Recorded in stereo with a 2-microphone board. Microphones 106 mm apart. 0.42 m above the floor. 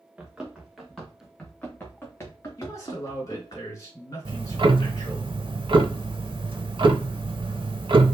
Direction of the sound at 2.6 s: 30° left (ahead or behind).